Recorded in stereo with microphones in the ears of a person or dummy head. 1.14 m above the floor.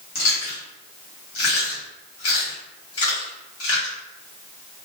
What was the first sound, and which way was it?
Chewing, 80° left.